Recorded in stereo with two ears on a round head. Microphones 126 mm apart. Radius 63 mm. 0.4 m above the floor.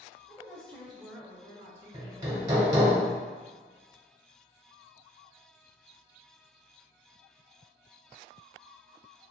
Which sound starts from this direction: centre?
A woman speaking, at 0.3 s.